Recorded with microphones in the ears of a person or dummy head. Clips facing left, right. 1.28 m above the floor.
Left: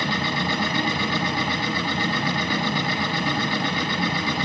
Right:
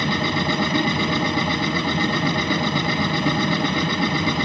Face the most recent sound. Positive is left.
turn(degrees=-60)  # may be behind; listen again after turning